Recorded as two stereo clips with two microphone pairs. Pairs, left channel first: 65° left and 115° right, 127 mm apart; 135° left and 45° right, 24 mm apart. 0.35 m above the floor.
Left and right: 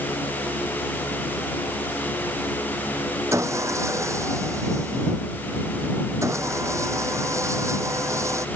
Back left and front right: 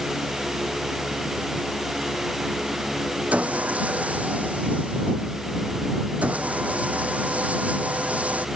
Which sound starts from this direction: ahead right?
Sawing, at 3.3 s.